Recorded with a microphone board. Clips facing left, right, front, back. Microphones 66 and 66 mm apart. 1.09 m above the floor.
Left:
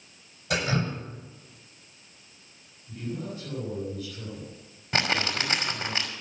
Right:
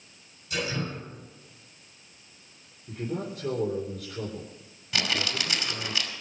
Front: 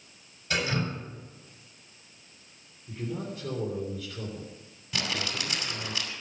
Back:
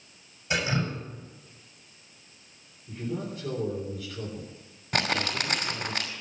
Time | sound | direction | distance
0.5 | dripping | 100° left | 7 m
2.9 | a man speaking | 90° right | 4 m
4.9 | crumpling | 140° left | 2.5 m